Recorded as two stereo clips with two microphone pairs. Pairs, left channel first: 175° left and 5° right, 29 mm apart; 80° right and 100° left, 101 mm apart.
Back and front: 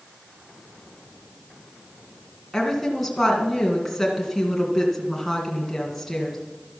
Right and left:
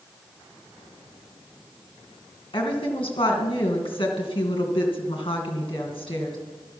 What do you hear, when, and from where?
2.5 s a woman speaking: 105° right, 2.5 m